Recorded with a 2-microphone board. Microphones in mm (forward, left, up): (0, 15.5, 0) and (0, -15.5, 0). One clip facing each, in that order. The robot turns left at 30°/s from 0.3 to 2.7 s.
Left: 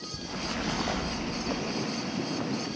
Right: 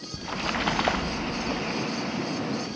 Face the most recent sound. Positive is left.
turn(degrees=-160)